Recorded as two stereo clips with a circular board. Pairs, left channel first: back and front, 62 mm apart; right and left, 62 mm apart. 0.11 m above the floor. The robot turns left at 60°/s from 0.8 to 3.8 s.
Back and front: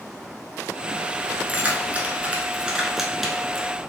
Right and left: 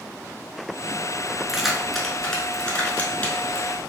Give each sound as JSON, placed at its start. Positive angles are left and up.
{"t": 1.5, "sound": "keys jangling", "azimuth_deg": 20, "distance_m": 0.8}